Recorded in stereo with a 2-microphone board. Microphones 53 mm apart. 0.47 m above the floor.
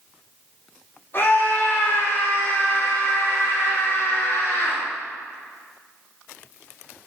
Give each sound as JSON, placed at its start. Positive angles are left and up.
{"t": 1.1, "sound": "a scream", "side_deg": 45, "distance_m": 3.0}